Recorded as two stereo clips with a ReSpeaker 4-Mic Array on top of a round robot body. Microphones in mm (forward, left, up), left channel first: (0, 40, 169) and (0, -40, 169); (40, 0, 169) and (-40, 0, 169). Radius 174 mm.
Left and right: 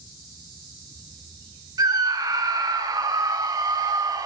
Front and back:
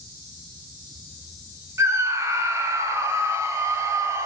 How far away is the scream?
About 4 m.